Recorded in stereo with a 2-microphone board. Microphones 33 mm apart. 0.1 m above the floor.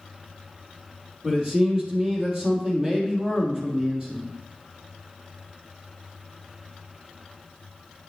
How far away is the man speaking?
About 2.5 m.